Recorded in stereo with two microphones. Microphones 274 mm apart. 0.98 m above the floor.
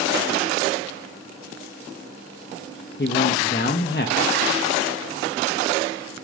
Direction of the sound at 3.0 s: 40° left (ahead or behind).